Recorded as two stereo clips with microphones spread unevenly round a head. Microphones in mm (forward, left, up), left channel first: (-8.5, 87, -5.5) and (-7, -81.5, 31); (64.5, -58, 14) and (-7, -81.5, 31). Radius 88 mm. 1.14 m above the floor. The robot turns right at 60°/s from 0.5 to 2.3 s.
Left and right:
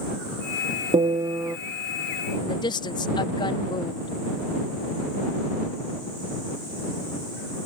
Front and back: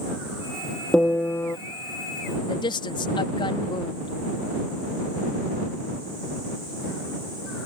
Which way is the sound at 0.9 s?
70° right.